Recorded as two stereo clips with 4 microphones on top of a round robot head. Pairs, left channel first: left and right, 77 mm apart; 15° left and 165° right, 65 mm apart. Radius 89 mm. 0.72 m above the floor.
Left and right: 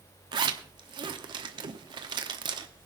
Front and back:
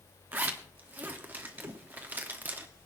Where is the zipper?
105° right, 1.0 m.